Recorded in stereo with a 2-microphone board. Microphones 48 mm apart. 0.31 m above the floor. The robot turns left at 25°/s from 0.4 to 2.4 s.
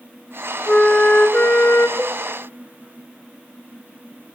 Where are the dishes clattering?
30° left (ahead or behind), 1.0 m; by 2.2 s 25° left (ahead or behind), 1.0 m.